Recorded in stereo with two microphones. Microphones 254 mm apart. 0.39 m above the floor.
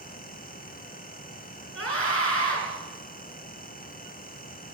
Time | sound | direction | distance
1.8 | a scream | 60° left (ahead or behind) | 5 m